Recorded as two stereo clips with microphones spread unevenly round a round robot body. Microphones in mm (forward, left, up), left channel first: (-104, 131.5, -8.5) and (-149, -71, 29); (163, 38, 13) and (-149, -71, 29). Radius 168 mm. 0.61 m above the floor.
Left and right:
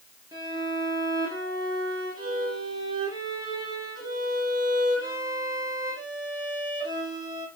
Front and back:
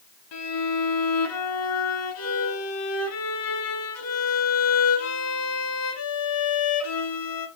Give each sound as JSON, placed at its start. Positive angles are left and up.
{"t": 0.3, "sound": "a violin", "azimuth_deg": -25, "distance_m": 1.4}